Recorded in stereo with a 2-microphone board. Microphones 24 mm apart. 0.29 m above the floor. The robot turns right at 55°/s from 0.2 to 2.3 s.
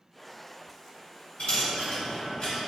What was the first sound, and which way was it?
A dropped coin, 75° left (ahead or behind).